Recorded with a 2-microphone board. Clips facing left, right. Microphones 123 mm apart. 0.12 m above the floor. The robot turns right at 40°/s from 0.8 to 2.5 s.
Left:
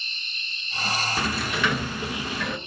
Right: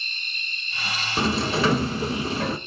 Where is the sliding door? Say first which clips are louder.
Right 8 dB; 130° right, 0.9 m; by 2.6 s 75° right, 0.9 m.